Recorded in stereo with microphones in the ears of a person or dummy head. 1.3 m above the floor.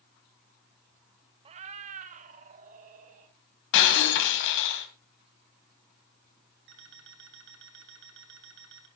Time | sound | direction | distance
1.4 | a cat meowing | 35° right (ahead or behind) | 0.6 m
3.7 | breaking glass | 70° left (ahead or behind) | 3 m
6.7 | an alarm clock | 65° right (ahead or behind) | 3 m